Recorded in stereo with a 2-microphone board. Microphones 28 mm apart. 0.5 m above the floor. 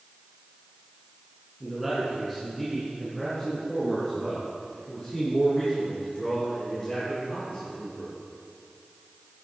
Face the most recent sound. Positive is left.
turn(degrees=35)  # may be behind; listen again after turning